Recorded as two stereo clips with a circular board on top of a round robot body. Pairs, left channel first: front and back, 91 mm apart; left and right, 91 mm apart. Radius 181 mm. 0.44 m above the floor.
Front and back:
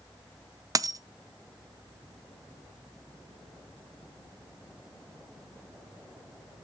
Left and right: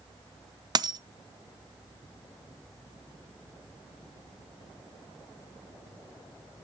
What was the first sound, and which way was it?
A dropped coin, 130° right.